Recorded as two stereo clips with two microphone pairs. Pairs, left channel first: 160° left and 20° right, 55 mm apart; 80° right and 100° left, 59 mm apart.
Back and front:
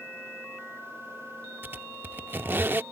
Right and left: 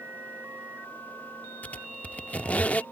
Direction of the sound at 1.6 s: 30° right.